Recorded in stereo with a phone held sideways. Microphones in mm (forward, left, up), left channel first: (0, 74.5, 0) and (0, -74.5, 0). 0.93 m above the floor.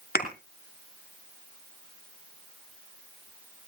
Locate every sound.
0.1 s a thud: 75° left (ahead or behind), 3 m